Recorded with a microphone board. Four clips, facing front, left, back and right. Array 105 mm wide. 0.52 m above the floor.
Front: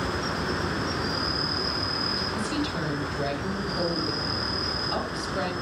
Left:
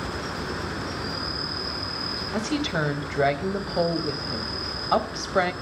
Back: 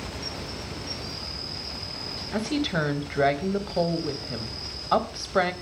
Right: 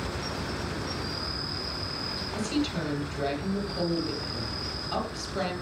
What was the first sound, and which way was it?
An insect, 20° left.